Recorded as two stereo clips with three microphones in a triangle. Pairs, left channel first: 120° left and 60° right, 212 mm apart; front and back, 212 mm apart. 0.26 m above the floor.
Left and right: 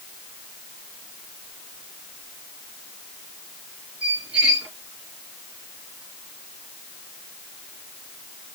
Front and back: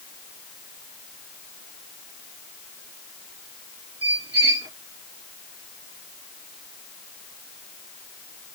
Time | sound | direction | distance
4.0 | a squeak | 145° right | 2 m